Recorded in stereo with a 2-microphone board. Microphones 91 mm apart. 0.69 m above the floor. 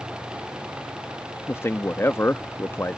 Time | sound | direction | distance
1.5 | a man speaking | 25° left (ahead or behind) | ?